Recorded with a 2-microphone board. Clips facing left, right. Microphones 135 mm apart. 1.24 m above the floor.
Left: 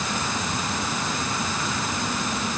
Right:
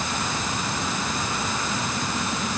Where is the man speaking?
I don't hear a man speaking.